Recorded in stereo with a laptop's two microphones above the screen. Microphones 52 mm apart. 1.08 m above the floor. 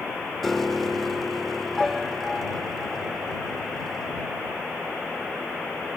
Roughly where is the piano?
Centre.